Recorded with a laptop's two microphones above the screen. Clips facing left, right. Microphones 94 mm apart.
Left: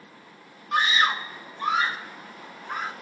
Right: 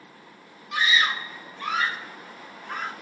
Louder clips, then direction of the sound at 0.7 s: Left 2 dB; 40° left (ahead or behind).